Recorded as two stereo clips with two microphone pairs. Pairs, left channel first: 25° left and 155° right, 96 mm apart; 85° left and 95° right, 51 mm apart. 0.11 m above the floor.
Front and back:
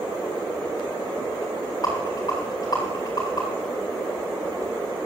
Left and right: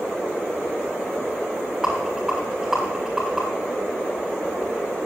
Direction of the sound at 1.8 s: 15° right.